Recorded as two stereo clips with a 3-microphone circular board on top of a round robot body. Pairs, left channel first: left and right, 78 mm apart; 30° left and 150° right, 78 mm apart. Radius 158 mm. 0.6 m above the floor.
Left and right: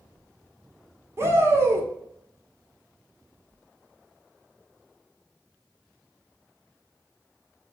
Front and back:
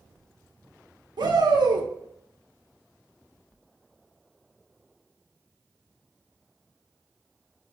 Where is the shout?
145° right, 2 m.